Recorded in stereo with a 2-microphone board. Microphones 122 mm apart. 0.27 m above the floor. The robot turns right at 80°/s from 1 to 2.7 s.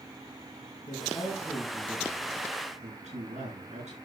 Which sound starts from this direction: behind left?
A man speaking, at 0.9 s.